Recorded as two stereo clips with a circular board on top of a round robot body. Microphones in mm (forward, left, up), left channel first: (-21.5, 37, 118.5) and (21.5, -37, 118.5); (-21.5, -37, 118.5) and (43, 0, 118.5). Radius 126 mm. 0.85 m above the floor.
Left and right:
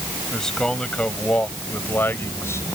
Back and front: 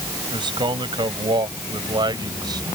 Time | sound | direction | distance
0.3 | a man speaking | 35° left | ?